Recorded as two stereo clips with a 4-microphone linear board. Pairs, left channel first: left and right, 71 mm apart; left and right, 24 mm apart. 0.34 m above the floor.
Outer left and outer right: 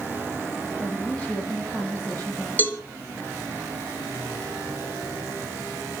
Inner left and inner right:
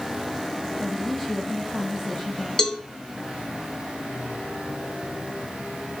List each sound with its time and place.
0.8 s a woman speaking: 20° left (ahead or behind), 8.5 m
2.6 s a cowbell: 25° left (ahead or behind), 3 m